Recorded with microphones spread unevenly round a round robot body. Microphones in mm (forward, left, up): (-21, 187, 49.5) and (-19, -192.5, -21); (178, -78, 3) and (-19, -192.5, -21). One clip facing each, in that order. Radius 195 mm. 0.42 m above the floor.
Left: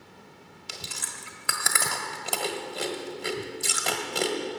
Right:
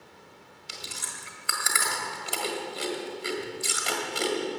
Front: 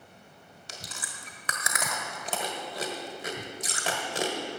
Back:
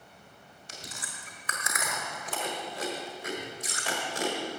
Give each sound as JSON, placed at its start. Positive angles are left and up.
{"t": 0.7, "sound": "chewing", "azimuth_deg": 50, "distance_m": 1.3}